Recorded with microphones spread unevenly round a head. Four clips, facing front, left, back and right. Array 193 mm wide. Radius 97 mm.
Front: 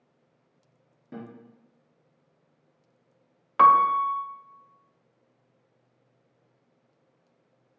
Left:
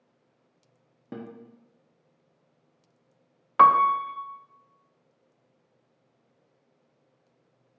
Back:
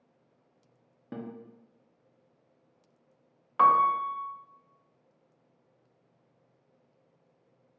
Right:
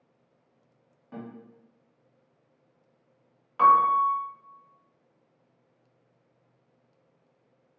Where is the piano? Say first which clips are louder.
Left 1 dB, front 4 dB; 60° left, 0.5 m.